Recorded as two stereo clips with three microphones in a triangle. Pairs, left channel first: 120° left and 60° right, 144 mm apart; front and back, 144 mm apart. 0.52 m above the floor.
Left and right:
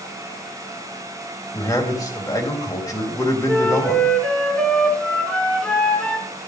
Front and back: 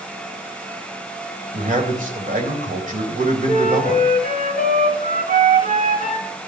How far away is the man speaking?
About 2.5 m.